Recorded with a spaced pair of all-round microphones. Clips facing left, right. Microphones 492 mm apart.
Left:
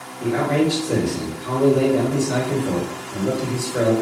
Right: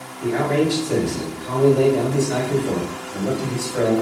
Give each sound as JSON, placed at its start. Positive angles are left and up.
{"t": 0.2, "sound": "a man speaking", "side_deg": 85, "distance_m": 1.3}